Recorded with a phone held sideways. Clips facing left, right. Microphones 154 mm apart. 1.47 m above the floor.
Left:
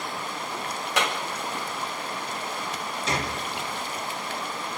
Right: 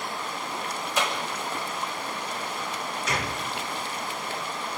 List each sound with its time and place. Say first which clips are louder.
1.0 s a clap: left 1 dB; 65° left (ahead or behind), 4.5 m
3.1 s a gunshot: left 2 dB; 30° left (ahead or behind), 2.5 m